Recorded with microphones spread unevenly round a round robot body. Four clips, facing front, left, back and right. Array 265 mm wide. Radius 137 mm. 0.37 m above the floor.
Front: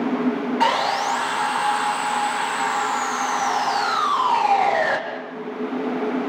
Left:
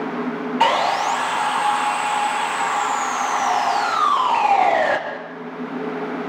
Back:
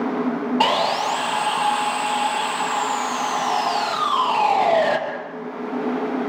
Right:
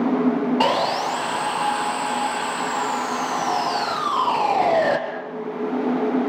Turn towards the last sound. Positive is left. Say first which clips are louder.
# left 2 dB, even
turn(degrees=-115)